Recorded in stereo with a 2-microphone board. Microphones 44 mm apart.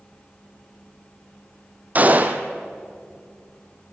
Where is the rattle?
I don't hear a rattle.